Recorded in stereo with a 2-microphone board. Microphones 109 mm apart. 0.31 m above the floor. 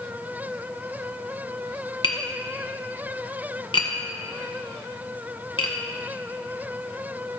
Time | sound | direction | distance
2.0 | tapping | 50° left (ahead or behind) | 1.7 m